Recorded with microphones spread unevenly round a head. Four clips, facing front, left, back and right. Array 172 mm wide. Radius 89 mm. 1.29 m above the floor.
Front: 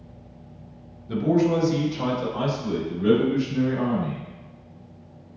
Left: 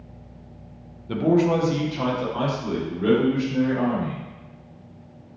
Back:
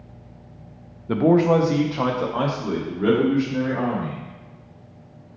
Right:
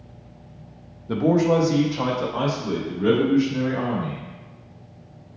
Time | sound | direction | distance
1.1 | a man speaking | 170° right | 0.5 m